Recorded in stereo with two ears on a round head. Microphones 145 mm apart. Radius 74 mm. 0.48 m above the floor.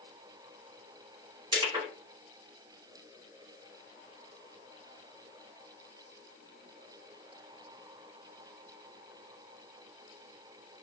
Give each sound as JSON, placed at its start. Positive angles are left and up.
{"t": 1.5, "sound": "crushing", "side_deg": -30, "distance_m": 1.8}